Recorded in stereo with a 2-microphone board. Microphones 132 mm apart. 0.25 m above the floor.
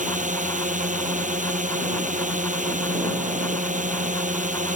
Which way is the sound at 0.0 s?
75° right (ahead or behind).